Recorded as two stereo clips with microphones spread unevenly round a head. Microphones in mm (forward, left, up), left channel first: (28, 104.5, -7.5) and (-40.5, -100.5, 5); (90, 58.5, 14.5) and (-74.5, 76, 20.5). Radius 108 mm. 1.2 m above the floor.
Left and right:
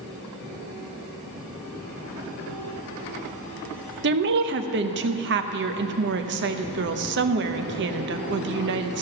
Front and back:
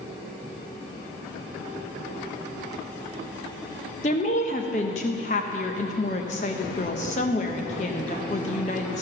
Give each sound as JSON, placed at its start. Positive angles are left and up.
{"t": 4.0, "sound": "a woman speaking", "azimuth_deg": -65, "distance_m": 0.8}